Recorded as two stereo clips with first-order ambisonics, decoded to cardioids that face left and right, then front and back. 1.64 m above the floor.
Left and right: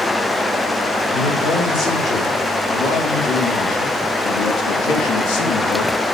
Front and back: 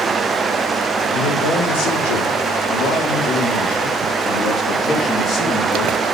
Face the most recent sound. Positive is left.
turn(degrees=75)